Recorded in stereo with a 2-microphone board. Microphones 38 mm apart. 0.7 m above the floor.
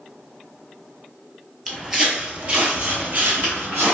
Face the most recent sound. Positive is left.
turn(degrees=-60)  # may be behind; listen again after turning